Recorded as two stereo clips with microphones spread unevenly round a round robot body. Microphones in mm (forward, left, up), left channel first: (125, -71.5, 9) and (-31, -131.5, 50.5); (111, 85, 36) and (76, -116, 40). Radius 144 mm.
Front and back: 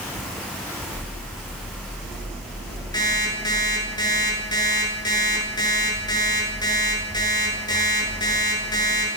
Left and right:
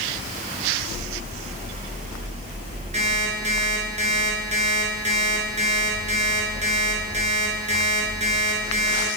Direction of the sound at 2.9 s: 45° right.